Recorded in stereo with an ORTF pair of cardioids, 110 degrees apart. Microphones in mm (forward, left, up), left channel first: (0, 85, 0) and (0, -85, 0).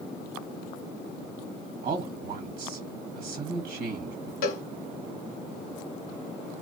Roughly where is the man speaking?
Ahead right.